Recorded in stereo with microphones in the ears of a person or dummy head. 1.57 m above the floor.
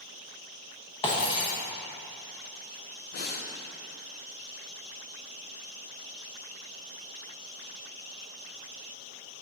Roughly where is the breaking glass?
Left.